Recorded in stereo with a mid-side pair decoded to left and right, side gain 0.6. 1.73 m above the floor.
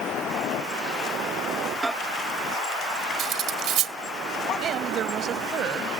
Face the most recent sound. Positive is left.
turn(degrees=-50)